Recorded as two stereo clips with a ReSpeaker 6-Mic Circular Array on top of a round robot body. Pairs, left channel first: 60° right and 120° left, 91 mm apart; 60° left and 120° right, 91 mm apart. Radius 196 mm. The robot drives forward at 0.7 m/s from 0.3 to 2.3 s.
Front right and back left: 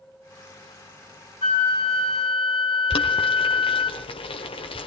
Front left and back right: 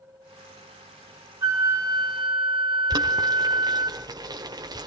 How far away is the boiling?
About 0.9 m.